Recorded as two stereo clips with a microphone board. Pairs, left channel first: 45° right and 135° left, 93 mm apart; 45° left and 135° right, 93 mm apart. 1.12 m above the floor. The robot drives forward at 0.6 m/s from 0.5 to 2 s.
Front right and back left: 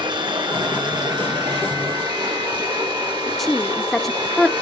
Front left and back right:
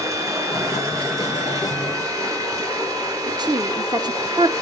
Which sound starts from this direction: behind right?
A woman speaking, at 3.4 s.